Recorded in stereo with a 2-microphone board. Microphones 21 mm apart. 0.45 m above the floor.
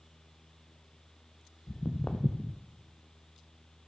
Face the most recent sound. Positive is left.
turn(degrees=60)  # may be behind; listen again after turning